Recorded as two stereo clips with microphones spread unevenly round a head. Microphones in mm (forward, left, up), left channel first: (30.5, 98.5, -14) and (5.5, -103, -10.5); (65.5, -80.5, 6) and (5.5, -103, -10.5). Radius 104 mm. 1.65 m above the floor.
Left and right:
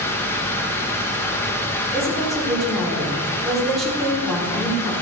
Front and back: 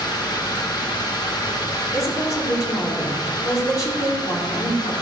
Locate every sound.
0.0 s running water: 5° left, 1.9 m
1.9 s a woman speaking: 10° right, 5 m